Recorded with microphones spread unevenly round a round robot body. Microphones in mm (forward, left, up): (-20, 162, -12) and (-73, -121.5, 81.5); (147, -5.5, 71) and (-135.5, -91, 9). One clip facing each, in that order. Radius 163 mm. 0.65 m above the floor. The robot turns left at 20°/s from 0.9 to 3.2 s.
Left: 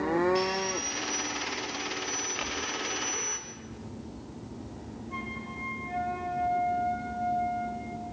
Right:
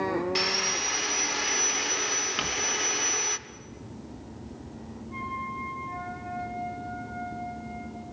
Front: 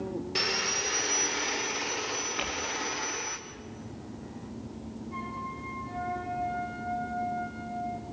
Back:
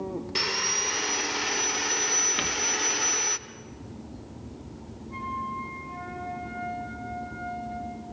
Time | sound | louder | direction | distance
0.3 | sawing | left 3 dB, even | 85° right | 1.2 m
2.4 | crumpling | right 3 dB, back 4 dB | 125° right | 2.5 m
5.1 | a flute | even, back 1 dB | 120° left | 4 m